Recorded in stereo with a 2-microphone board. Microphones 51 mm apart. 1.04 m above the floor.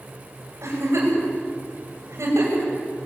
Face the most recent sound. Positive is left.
turn(degrees=-60)  # may be behind; listen again after turning